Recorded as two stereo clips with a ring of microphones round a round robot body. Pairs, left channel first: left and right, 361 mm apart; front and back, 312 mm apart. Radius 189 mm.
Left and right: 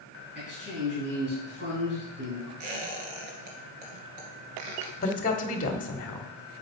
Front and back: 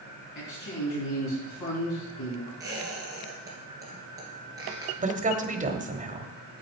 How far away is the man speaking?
About 4.5 m.